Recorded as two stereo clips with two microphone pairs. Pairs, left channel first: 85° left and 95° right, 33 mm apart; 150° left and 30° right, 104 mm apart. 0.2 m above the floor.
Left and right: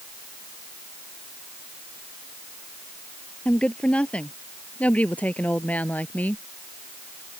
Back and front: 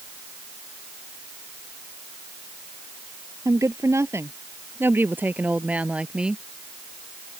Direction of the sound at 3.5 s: 30° left.